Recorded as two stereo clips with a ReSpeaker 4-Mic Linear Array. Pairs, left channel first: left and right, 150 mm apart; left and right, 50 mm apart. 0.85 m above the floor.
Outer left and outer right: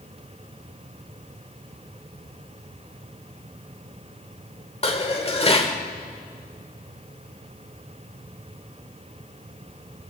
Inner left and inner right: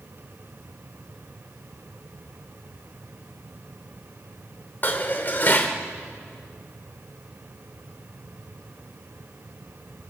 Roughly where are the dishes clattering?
Left.